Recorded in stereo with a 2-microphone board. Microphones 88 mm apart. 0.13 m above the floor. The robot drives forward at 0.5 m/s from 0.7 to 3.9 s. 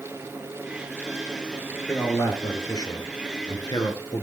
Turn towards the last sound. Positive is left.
turn(degrees=45)  # may be behind; listen again after turning